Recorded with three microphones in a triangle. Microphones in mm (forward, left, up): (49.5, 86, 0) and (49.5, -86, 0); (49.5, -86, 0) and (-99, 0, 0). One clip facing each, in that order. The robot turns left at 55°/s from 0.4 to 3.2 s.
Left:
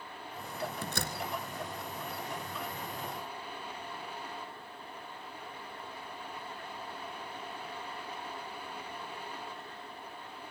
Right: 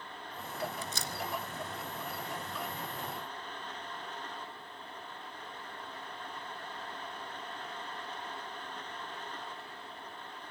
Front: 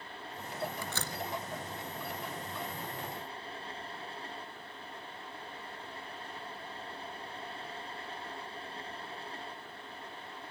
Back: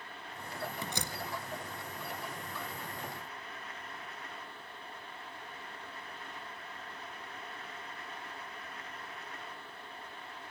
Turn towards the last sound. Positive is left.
turn(degrees=-45)